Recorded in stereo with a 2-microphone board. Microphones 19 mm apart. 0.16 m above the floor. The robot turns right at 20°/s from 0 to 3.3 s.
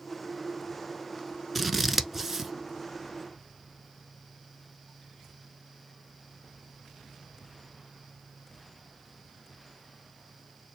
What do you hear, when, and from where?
1.6 s scissors: centre (ahead or behind), 0.7 m; by 2.5 s 15° right (ahead or behind), 0.7 m